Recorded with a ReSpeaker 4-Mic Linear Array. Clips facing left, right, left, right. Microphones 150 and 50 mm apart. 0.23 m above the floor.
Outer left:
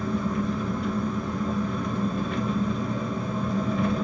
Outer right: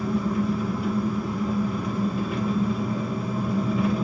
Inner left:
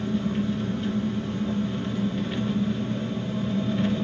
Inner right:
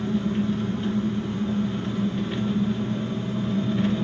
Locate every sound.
0.0 s an engine running: 5° right (ahead or behind), 1.8 m